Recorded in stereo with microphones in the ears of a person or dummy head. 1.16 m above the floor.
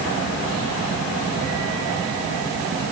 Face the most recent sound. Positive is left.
No sound to turn to.